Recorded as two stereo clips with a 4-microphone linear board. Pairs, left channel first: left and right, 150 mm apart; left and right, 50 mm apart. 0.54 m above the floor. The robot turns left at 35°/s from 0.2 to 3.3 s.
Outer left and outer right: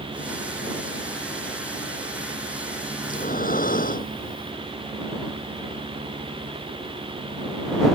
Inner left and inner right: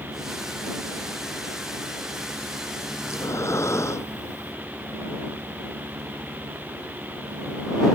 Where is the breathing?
60° left (ahead or behind); by 4.5 s 70° left (ahead or behind).